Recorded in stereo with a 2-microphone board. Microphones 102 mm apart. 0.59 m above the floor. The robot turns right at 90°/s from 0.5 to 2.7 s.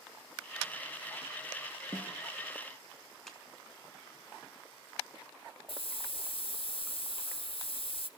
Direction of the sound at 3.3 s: Centre (ahead or behind).